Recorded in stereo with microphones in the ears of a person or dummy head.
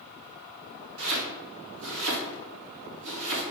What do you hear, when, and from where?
1.0 s chopping: 75° right (ahead or behind), 1.7 m